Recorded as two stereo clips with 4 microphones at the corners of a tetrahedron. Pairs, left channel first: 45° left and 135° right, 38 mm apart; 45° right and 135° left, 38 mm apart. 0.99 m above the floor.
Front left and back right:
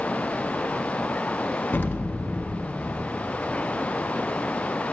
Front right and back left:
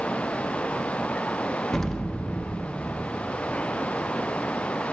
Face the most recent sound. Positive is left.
turn(degrees=35)